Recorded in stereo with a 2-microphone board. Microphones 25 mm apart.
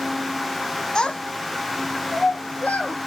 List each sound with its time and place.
0.9 s a child speaking: 30° left (ahead or behind), 1.0 m; by 3.0 s 55° left (ahead or behind), 2.5 m